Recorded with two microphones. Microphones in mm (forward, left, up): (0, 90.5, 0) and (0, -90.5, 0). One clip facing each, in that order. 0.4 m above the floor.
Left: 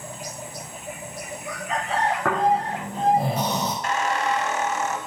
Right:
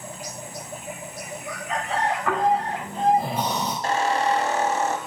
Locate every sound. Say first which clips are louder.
2.2 s snoring: even; 80° left, 6 m
3.8 s a squeak: right 5 dB; 35° right (ahead or behind), 1.1 m